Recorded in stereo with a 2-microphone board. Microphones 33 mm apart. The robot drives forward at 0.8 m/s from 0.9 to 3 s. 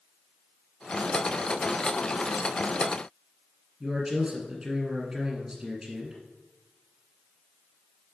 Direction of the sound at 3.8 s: 15° right (ahead or behind).